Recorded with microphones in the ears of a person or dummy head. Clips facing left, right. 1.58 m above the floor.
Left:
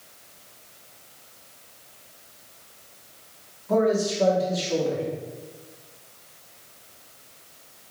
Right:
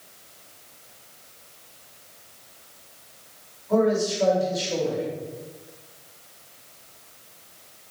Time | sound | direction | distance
3.7 | a man speaking | 50° left (ahead or behind) | 3.5 m